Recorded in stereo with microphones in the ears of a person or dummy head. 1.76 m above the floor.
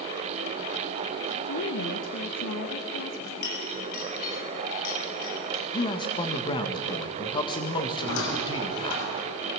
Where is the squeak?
80° left, 6 m.